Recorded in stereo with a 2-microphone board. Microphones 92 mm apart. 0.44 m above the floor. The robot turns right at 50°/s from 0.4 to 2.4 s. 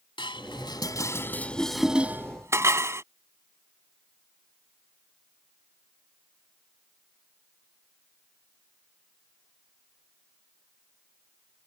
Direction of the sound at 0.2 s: 65° left (ahead or behind).